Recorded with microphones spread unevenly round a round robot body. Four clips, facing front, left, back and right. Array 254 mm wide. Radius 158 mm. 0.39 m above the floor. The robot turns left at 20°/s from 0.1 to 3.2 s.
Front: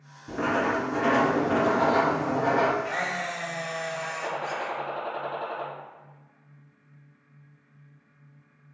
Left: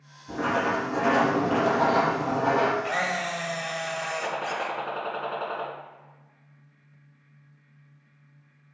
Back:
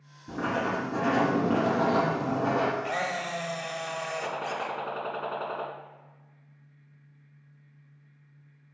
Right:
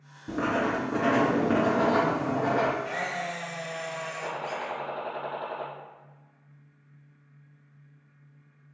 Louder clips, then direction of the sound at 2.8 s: Left 4 dB, even; 120° left.